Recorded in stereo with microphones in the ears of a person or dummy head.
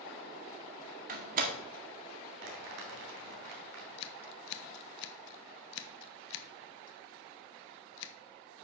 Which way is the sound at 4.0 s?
65° left (ahead or behind).